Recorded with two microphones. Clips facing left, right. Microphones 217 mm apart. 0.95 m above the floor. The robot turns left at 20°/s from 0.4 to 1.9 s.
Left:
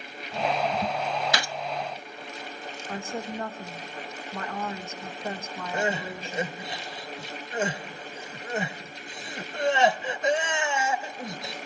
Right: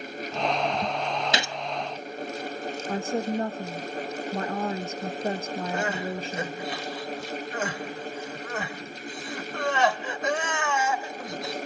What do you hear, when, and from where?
1.3 s a gunshot: 25° right (ahead or behind), 0.7 m; by 1.6 s 20° right (ahead or behind), 0.7 m
2.9 s a woman speaking: 35° right (ahead or behind), 1.1 m
5.7 s crying: 25° left (ahead or behind), 1.2 m